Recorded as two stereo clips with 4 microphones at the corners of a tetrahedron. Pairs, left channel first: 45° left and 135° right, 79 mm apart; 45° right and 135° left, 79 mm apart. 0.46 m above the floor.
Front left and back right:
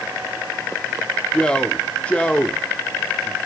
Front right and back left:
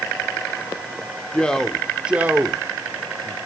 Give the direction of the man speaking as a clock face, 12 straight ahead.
12 o'clock.